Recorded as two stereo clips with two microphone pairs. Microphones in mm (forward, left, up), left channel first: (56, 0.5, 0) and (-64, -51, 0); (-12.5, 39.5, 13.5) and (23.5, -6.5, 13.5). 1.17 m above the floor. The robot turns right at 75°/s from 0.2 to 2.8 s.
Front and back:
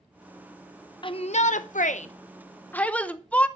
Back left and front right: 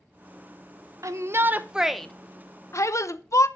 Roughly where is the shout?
Ahead right.